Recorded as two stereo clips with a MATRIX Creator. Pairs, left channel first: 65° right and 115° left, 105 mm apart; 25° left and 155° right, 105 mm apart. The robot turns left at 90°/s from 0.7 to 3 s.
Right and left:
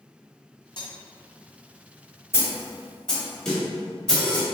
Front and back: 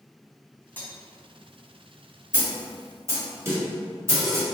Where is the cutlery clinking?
45° right, 0.9 m; by 0.9 s 60° right, 0.9 m.